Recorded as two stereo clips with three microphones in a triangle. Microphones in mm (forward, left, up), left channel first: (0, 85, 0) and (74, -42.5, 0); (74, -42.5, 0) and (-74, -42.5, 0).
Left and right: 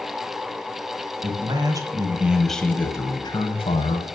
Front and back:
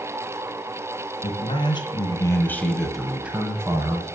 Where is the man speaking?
25° right, 1.9 m; by 4.0 s 125° left, 2 m.